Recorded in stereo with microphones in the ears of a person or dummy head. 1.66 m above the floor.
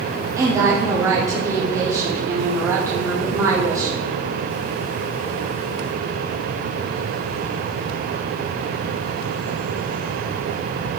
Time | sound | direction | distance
0.4 | a woman speaking | 20° right (ahead or behind) | 0.9 m